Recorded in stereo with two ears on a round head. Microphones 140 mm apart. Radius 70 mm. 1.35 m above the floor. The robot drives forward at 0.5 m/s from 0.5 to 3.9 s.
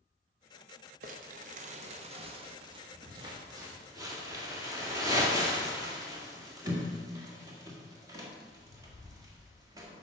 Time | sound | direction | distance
1.0 | crumpling | 55° right (ahead or behind) | 0.8 m